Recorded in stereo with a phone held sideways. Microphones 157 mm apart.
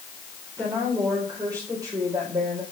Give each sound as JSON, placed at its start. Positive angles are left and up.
{"t": 0.6, "sound": "a woman speaking", "side_deg": -25, "distance_m": 4.0}